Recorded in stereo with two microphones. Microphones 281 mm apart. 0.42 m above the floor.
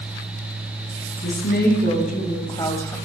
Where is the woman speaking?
40° left (ahead or behind), 3 m; by 3.0 s 5° left (ahead or behind), 1.8 m.